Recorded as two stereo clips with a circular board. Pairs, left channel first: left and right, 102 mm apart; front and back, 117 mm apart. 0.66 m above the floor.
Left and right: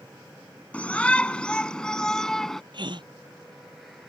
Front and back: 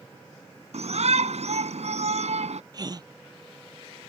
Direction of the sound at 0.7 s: 165° left.